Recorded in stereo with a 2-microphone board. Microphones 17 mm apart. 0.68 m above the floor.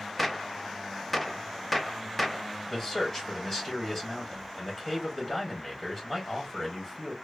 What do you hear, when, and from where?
0.2 s a gunshot: 10° left (ahead or behind), 0.5 m
2.7 s a man speaking: 25° left (ahead or behind), 1.5 m